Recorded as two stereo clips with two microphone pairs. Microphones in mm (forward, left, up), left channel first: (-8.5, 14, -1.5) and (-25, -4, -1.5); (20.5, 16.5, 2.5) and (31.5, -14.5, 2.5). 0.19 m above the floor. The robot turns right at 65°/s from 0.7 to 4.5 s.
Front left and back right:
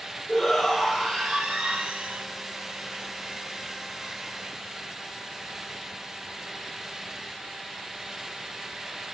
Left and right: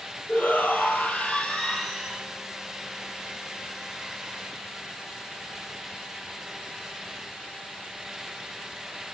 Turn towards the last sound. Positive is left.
turn(degrees=15)